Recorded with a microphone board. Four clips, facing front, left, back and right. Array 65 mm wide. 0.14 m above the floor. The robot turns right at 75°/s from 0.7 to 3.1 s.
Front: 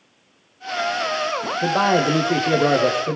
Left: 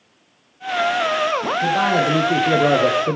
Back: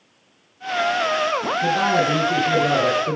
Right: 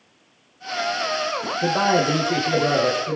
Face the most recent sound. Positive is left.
turn(degrees=85)